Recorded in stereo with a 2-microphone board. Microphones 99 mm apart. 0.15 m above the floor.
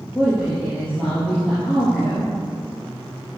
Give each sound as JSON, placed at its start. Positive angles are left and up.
{"t": 0.1, "sound": "a woman speaking", "side_deg": 10, "distance_m": 4.5}